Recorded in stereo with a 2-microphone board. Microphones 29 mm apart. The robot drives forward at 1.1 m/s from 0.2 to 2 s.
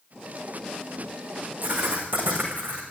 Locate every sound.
1.6 s writing: 75° right (ahead or behind), 8 m; by 2.8 s 80° right, 8 m